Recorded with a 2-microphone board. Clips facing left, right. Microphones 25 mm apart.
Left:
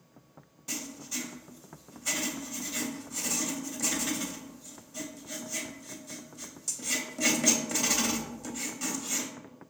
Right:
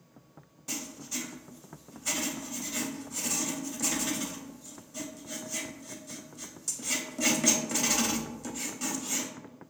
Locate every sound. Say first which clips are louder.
0.7 s writing: even; centre (ahead or behind), 0.6 m